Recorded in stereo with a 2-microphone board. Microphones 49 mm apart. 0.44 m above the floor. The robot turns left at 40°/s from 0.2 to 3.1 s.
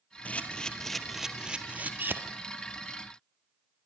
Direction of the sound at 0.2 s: 30° left (ahead or behind).